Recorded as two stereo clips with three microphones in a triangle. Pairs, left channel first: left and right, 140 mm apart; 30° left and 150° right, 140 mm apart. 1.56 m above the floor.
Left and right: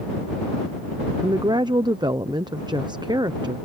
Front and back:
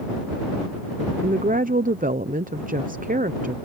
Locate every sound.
1.2 s a woman speaking: 150° right